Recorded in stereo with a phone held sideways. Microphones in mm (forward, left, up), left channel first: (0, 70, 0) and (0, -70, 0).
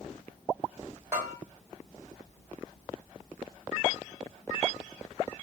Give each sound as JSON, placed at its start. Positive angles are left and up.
{"t": 1.1, "sound": "a bell", "side_deg": -15, "distance_m": 1.2}